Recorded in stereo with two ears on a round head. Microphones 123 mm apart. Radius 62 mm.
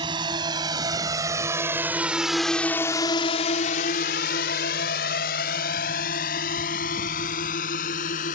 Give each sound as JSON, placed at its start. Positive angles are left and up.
{"t": 0.0, "sound": "a drone", "side_deg": -35}